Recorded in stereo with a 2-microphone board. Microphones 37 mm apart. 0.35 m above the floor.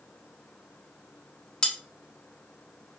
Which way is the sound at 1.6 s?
25° left (ahead or behind).